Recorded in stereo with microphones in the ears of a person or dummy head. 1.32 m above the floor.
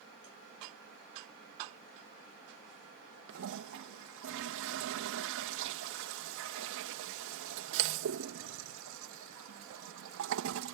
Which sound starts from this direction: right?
A toilet flushing, at 3.3 s.